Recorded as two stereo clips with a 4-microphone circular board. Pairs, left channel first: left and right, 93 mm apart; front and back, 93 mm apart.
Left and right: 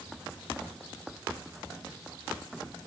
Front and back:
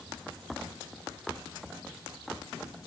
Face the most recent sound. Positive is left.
No sound to turn to.